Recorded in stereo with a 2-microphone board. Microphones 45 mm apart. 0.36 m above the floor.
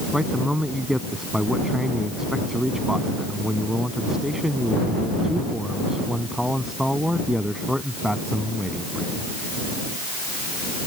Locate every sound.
0.1 s a man speaking: 5° right (ahead or behind)